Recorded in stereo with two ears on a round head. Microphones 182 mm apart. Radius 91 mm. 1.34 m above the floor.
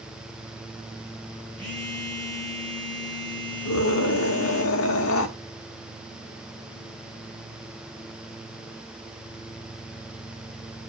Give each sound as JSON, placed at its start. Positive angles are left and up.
{"t": 1.6, "sound": "a phone buzzing", "side_deg": 5, "distance_m": 4.0}
{"t": 3.6, "sound": "a scream", "side_deg": 80, "distance_m": 1.9}